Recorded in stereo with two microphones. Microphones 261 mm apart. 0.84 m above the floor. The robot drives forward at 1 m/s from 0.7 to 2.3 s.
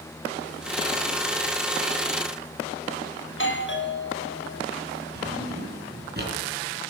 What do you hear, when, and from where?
3.3 s a doorbell: 45° left (ahead or behind), 1.3 m
5.2 s a drawer: 40° right (ahead or behind), 4.5 m